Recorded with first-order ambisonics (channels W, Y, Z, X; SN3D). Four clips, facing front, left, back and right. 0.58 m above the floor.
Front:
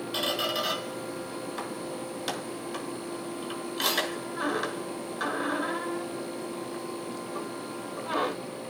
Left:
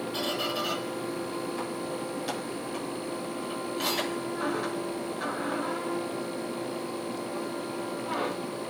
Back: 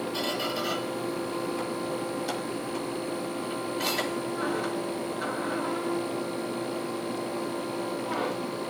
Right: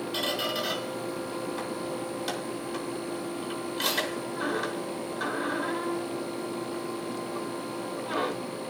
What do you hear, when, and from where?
0.1 s a squeak: 15° right, 6 m